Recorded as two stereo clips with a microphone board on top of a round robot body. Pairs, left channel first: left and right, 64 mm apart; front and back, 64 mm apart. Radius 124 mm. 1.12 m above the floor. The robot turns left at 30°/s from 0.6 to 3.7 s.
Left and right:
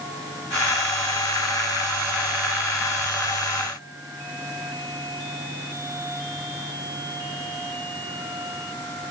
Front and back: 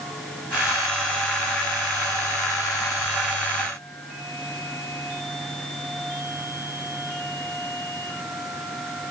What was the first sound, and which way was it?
Only background noise.